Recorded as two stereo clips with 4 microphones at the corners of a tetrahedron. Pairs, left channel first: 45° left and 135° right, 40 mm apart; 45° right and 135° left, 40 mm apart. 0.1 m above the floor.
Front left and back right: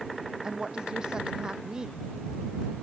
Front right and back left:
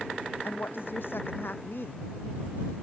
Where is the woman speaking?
65° right.